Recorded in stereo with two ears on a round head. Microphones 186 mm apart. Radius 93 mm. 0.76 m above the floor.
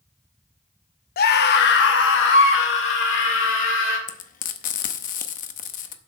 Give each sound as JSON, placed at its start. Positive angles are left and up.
{"t": 1.2, "sound": "a scream", "side_deg": 45, "distance_m": 0.8}
{"t": 4.1, "sound": "frying", "side_deg": 40, "distance_m": 0.8}